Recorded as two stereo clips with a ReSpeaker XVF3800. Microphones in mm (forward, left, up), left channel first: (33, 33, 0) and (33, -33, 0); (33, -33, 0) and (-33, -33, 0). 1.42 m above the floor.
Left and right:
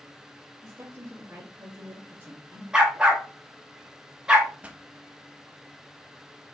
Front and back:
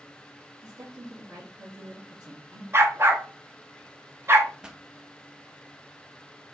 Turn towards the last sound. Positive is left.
turn(degrees=-120)